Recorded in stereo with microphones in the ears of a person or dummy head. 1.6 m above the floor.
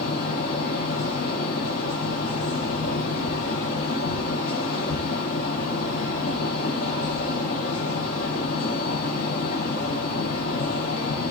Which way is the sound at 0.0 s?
40° left (ahead or behind).